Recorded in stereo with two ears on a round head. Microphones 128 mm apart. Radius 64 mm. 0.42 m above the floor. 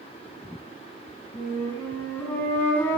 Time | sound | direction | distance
1.3 | a flute | 15° left (ahead or behind) | 4 m